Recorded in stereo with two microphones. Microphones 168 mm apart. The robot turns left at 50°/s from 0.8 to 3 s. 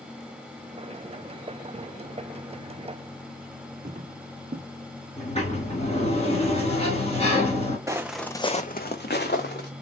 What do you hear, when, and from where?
3.9 s footsteps: 40° right (ahead or behind), 0.6 m
5.2 s a sliding door: 40° left (ahead or behind), 2.0 m
7.9 s footsteps: 20° right (ahead or behind), 0.8 m; by 9.7 s 80° left, 1.4 m